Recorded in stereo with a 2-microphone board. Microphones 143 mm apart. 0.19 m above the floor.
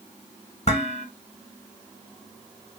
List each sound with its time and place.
0.7 s dishes clattering: 50° left (ahead or behind), 1.2 m